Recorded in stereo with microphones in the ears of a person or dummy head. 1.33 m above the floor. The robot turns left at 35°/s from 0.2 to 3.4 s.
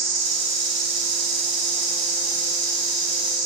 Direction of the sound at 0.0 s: 60° right.